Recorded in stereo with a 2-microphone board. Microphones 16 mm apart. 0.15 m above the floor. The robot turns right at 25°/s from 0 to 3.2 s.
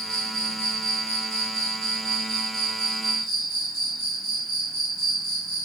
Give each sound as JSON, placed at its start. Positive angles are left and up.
{"t": 0.0, "sound": "an insect", "azimuth_deg": 80, "distance_m": 2.0}